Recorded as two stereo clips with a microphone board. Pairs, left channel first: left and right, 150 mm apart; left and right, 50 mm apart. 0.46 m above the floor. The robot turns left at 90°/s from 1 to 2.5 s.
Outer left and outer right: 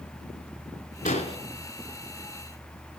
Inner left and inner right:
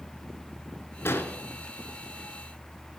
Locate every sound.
1.1 s an explosion: 60° left (ahead or behind), 0.9 m; by 1.4 s 35° left (ahead or behind), 0.9 m